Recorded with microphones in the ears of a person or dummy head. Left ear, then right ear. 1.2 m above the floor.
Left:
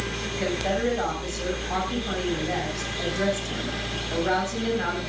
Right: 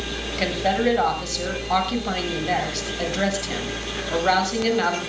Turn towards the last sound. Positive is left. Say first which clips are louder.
# right 5 dB
turn(degrees=-35)  # may be behind; listen again after turning